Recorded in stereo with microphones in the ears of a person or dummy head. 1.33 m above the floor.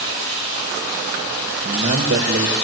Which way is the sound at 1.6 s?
45° right (ahead or behind).